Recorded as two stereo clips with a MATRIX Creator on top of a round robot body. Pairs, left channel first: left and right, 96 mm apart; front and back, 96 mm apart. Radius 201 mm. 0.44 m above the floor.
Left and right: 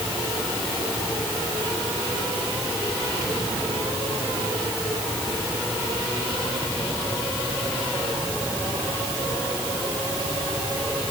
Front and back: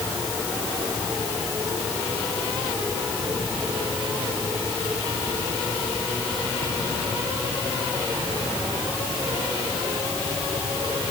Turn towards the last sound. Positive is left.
No sound to turn to.